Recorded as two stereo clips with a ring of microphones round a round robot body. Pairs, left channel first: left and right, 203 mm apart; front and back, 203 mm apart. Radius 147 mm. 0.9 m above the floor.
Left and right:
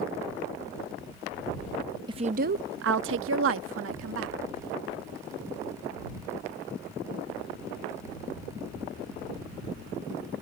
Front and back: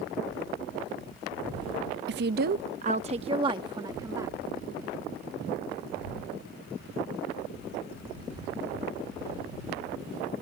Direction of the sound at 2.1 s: 160° right.